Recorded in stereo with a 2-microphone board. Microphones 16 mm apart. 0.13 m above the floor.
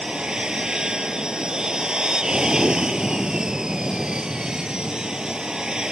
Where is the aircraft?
55° right (ahead or behind); by 5.9 s 50° right (ahead or behind).